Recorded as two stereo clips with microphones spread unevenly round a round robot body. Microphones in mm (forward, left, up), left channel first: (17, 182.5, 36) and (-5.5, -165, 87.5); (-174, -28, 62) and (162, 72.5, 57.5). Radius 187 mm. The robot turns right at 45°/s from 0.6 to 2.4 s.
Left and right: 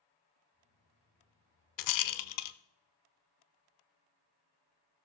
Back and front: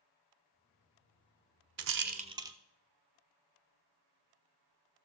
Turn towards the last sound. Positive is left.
turn(degrees=95)